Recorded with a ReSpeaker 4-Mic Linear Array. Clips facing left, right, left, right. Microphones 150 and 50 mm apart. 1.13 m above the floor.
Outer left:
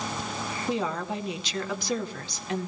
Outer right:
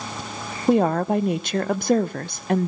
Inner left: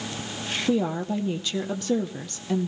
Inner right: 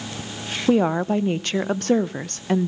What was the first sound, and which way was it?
A woman speaking, 55° right (ahead or behind).